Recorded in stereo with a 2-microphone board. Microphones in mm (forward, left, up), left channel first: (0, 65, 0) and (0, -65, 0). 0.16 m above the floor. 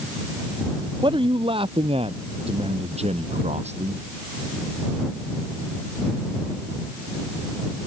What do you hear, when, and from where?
1.0 s a man speaking: 40° right (ahead or behind); by 4.0 s 60° right (ahead or behind)